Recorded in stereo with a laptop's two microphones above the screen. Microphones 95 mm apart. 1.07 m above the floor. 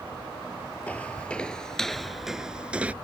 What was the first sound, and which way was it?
Footsteps, 15° left (ahead or behind).